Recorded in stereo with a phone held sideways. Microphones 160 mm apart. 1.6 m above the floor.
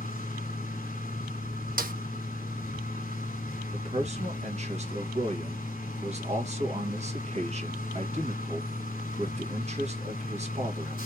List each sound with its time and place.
0.0 s a machine running: 55° left (ahead or behind), 0.9 m
1.8 s a snare drum: 65° right (ahead or behind), 0.8 m
3.7 s a man speaking: 45° right (ahead or behind), 1.6 m